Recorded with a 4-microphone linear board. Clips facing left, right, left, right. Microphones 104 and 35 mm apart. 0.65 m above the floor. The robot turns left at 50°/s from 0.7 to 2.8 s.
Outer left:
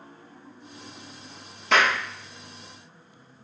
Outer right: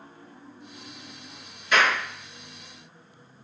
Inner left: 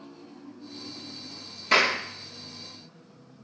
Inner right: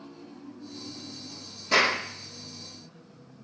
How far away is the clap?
About 4.5 m.